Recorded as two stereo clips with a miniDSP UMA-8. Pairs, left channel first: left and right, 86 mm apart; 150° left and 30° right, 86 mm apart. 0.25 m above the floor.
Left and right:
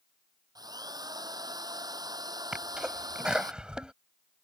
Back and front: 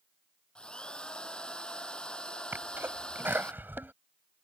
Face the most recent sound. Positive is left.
turn(degrees=-25)